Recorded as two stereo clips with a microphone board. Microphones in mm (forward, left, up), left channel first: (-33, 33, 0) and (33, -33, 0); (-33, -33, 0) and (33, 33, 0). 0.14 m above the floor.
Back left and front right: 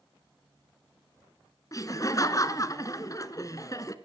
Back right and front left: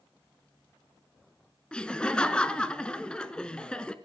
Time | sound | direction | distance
1.7 | laughter | 150° left | 1.5 m